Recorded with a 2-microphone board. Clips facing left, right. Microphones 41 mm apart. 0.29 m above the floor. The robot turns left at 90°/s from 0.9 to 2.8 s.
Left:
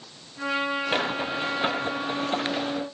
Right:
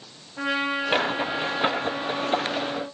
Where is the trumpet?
135° right, 6 m; by 2.9 s 55° left, 6 m.